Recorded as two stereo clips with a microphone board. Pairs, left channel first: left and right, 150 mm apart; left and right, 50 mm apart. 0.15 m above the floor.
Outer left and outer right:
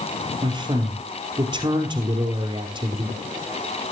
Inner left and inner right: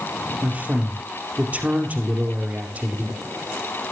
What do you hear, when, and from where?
0.4 s a man speaking: 30° right (ahead or behind), 3 m